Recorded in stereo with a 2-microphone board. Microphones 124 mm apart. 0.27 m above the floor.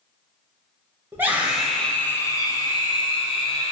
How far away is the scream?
About 1.2 m.